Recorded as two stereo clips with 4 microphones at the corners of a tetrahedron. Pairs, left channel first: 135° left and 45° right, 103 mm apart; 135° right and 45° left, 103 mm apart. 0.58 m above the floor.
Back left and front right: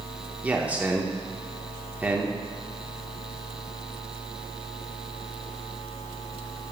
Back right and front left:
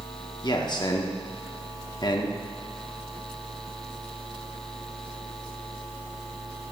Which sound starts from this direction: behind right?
A man speaking, at 0.4 s.